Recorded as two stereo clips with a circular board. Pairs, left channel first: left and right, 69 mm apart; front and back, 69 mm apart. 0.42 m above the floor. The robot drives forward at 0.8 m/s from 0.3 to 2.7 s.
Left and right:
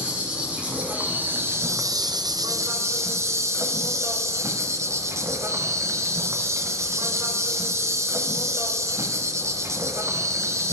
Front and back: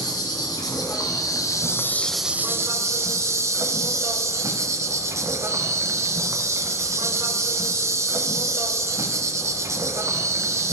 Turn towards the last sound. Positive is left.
turn(degrees=-135)